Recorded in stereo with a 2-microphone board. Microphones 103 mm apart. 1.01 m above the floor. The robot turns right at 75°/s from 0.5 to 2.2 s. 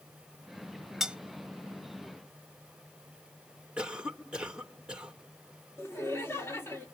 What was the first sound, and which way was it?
Cutlery clinking, 5° right (ahead or behind).